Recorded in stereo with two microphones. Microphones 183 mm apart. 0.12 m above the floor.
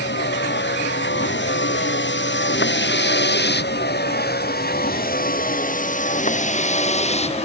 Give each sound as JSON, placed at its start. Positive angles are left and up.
{"t": 0.0, "sound": "a vehicle", "side_deg": 75}